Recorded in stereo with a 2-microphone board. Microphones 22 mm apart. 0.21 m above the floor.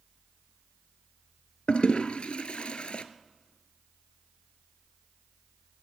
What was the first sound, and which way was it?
A toilet flushing, 75° left (ahead or behind).